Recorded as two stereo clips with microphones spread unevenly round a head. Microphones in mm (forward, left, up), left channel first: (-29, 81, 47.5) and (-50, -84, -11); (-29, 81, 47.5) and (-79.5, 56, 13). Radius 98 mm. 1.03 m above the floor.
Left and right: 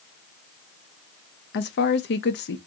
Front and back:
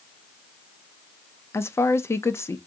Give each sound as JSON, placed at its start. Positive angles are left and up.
{"t": 1.5, "sound": "a woman speaking", "azimuth_deg": 95, "distance_m": 0.7}